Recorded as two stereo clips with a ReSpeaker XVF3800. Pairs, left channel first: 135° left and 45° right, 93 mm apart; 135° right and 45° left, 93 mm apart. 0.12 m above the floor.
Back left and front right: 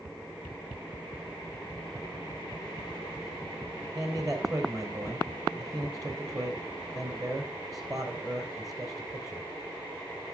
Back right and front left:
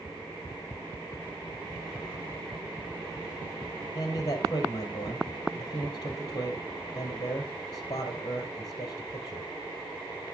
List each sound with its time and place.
4.0 s a man speaking: 95° right, 3 m